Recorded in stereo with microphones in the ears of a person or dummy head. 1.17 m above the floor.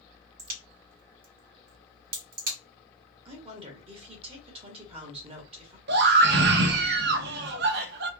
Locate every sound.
0.4 s a crack: 45° right (ahead or behind), 1.6 m
3.2 s a woman speaking: 30° right (ahead or behind), 1.2 m
5.9 s a scream: 50° right (ahead or behind), 0.6 m